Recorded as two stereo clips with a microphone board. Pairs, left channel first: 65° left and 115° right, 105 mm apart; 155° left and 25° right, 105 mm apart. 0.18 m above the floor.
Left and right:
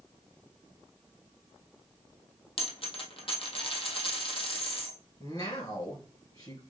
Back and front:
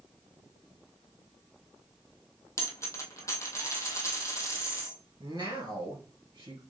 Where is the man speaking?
25° left, 2.5 m.